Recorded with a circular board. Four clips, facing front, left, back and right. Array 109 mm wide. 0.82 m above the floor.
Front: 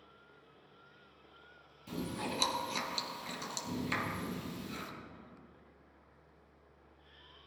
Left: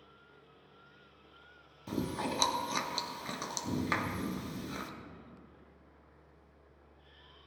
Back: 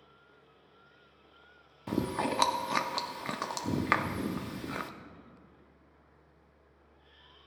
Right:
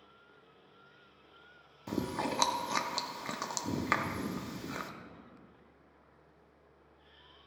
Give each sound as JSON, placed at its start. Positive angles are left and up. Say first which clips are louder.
{"t": 1.9, "sound": "chewing", "louder": "right 1 dB, back 8 dB", "azimuth_deg": -165, "distance_m": 0.5}